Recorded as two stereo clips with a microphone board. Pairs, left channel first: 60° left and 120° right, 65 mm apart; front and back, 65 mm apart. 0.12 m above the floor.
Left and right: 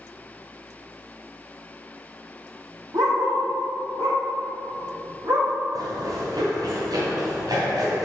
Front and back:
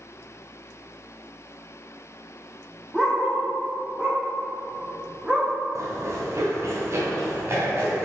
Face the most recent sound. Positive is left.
turn(degrees=-130)